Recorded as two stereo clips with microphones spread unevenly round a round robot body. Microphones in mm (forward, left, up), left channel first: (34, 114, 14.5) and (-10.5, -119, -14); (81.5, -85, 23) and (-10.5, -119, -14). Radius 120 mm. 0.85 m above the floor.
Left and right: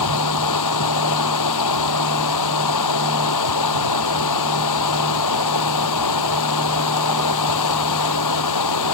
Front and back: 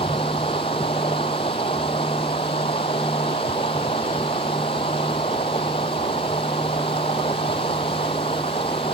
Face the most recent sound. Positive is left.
turn(degrees=85)